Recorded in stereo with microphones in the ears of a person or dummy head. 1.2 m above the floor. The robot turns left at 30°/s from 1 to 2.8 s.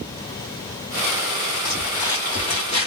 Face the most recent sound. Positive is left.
turn(degrees=25)  # may be behind; listen again after turning